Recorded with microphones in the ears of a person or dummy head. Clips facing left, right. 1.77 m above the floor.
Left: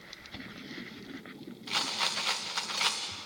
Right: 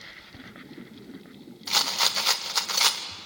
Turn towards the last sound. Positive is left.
turn(degrees=-60)  # may be behind; listen again after turning